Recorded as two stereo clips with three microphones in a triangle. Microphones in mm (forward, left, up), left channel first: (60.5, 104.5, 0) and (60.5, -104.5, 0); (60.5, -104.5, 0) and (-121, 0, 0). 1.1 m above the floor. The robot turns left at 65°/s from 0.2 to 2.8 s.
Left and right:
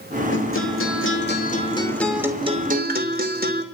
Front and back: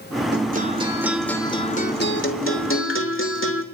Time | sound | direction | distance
0.3 | a guitar | 115° left | 2.5 m